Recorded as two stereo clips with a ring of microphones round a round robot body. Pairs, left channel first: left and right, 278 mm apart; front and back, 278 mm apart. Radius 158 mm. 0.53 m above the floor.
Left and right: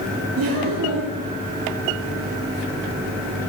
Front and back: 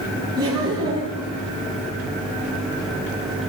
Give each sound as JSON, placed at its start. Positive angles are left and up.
{"t": 0.4, "sound": "laughter", "azimuth_deg": -105, "distance_m": 9.5}